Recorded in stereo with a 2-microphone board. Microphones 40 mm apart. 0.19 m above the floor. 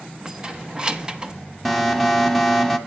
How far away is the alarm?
About 1.1 m.